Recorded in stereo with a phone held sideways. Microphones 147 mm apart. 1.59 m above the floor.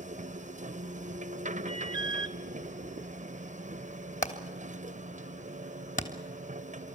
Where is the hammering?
65° left (ahead or behind), 3 m.